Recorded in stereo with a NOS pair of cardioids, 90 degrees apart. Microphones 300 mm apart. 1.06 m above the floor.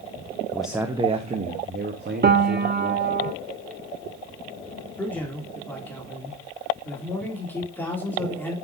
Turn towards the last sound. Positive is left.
turn(degrees=5)